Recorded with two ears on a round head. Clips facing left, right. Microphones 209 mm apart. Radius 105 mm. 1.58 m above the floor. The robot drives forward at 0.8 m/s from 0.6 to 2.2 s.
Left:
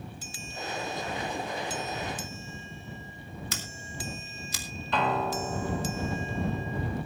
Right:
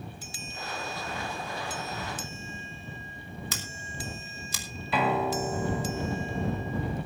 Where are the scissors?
75° right (ahead or behind), 3 m.